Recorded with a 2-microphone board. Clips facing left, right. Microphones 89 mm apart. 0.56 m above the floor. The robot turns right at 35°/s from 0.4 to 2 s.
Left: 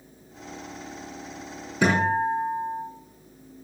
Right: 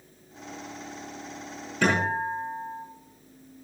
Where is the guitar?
10° left (ahead or behind), 7.5 m; by 2.8 s 5° left (ahead or behind), 7.5 m.